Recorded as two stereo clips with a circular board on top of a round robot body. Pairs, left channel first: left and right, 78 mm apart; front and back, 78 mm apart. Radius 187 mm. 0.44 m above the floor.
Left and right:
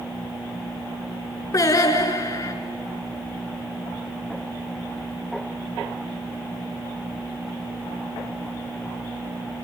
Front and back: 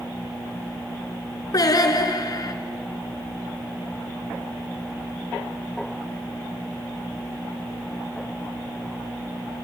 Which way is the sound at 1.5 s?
45° left.